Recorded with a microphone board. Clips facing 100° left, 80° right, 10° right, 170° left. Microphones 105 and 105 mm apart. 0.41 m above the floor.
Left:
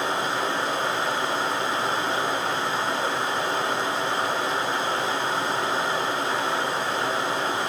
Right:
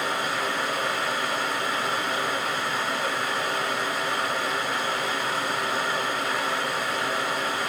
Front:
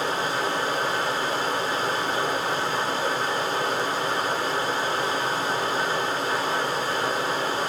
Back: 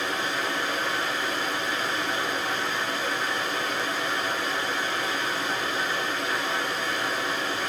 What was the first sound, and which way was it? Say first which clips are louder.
Running water: left 2 dB, front 3 dB; 40° left.